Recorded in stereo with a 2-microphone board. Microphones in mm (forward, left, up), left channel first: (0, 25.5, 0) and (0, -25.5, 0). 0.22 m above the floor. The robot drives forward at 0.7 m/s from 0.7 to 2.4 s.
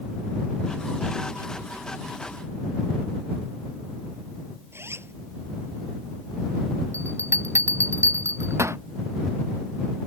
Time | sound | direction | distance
4.7 | a zipper | 55° right (ahead or behind) | ?
6.9 | a bell | 65° right (ahead or behind) | ?